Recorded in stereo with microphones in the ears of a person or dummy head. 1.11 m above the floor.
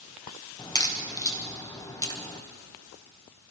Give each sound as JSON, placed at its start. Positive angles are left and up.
{"t": 0.6, "sound": "a crack", "side_deg": 15, "distance_m": 1.0}